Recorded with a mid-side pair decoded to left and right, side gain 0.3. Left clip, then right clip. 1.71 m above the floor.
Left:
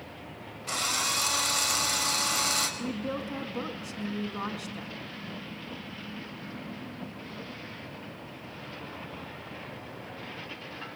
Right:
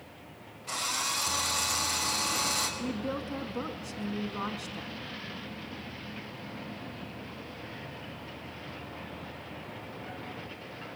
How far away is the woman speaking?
About 3.5 m.